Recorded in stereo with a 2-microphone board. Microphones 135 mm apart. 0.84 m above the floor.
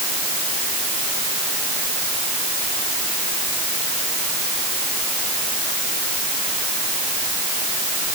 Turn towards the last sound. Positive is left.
No sound to turn to.